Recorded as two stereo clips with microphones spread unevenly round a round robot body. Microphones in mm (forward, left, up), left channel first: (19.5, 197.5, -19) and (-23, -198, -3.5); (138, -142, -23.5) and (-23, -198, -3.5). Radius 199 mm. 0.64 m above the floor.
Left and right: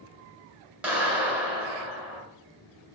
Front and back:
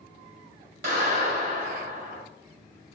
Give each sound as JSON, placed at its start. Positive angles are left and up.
{"t": 0.8, "sound": "a clap", "azimuth_deg": 175, "distance_m": 2.5}